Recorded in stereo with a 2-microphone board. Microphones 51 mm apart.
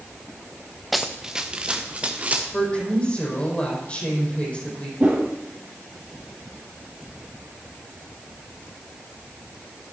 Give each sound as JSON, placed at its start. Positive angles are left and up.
{"t": 0.9, "sound": "running footsteps", "side_deg": 0, "distance_m": 1.1}
{"t": 2.5, "sound": "a woman speaking", "side_deg": 25, "distance_m": 5.5}
{"t": 5.0, "sound": "a whoosh", "side_deg": -30, "distance_m": 4.0}